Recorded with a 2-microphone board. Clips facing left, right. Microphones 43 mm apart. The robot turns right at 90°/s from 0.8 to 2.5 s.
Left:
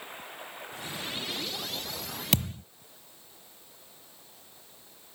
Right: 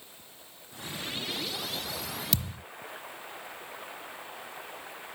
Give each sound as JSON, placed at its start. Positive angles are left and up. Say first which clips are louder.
{"t": 0.0, "sound": "running water", "louder": "left 11 dB", "azimuth_deg": 130}
{"t": 2.3, "sound": "a thud", "louder": "left 5 dB", "side_deg": 55}